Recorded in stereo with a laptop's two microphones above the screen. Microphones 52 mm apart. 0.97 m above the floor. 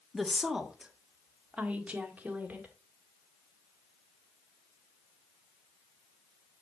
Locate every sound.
0.1 s a woman speaking: centre (ahead or behind), 1.4 m; by 2.7 s 30° right (ahead or behind), 2.5 m